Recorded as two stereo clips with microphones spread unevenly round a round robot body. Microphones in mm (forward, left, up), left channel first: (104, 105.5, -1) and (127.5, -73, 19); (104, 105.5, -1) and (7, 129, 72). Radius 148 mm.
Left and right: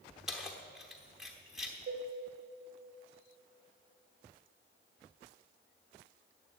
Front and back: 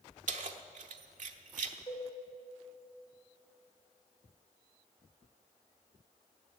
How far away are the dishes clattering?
About 2.0 m.